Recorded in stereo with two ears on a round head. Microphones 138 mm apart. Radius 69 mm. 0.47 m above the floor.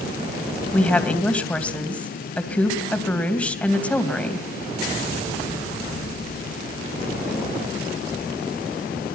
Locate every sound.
0.7 s a woman speaking: 10° left (ahead or behind), 3 m